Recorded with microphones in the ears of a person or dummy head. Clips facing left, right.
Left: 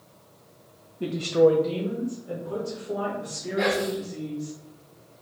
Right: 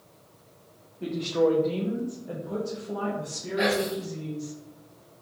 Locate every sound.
1.0 s a woman speaking: 50° left (ahead or behind), 0.6 m; by 4.5 s 40° right (ahead or behind), 2 m
3.6 s whispering: 20° right (ahead or behind), 1.0 m